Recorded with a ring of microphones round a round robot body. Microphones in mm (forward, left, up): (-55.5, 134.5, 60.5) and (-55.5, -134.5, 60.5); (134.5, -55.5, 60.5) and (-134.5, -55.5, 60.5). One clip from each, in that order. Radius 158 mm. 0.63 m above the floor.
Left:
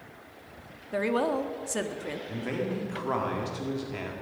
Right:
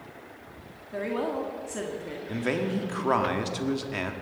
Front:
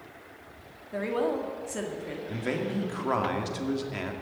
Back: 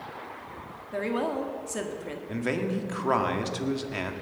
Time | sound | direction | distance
0.9 | a woman speaking | 100° left | 1.5 m
2.3 | a man speaking | 115° right | 1.8 m